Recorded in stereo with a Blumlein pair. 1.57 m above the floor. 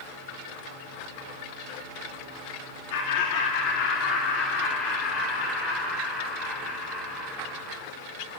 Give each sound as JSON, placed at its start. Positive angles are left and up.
{"t": 2.9, "sound": "laughter", "azimuth_deg": 50, "distance_m": 2.5}